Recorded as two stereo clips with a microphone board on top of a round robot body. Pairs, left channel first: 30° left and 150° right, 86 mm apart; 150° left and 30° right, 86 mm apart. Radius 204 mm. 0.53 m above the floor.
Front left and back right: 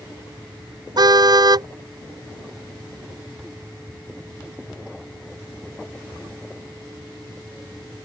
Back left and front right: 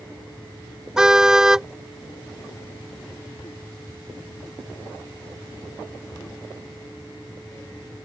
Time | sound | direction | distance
1.0 | a car horn | 115° right | ?